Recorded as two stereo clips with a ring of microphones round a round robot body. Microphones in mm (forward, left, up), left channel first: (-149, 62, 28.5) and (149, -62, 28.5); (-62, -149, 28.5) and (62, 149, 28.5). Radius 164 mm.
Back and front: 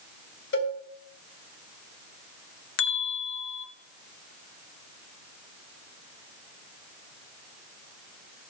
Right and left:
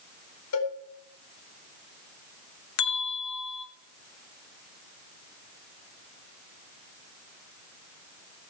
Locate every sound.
0.5 s a cowbell: 150° right, 4.5 m
2.8 s a bell: 150° right, 1.0 m